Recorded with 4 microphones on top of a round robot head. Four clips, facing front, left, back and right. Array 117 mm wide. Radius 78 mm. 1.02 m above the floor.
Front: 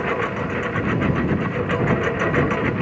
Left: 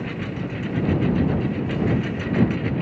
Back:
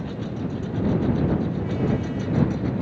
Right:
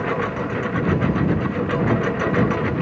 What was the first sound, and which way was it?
A lawn mower, 45° right.